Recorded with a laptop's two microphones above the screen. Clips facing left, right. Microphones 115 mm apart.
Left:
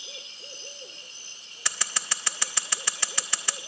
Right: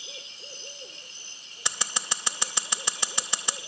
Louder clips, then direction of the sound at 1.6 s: Right 1 dB; 20° right (ahead or behind).